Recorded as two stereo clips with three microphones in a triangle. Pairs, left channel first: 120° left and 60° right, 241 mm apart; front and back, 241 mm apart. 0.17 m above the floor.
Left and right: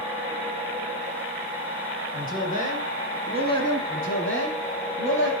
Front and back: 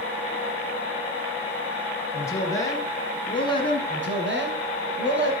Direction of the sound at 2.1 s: 75° left.